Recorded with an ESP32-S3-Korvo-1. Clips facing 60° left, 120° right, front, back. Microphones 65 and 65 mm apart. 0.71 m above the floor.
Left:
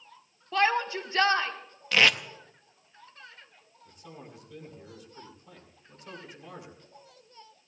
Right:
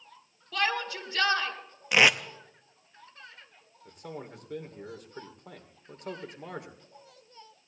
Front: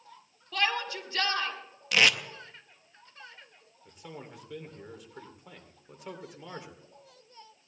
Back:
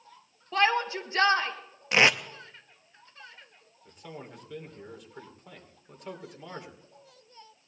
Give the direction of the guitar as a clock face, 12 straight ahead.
No guitar in this recording.